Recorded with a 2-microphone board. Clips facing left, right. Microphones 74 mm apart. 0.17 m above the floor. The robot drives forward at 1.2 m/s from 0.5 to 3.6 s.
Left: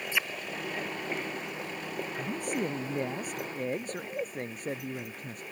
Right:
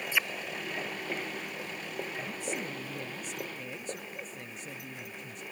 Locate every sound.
2.2 s a man speaking: 55° left (ahead or behind); by 5.4 s 50° left (ahead or behind)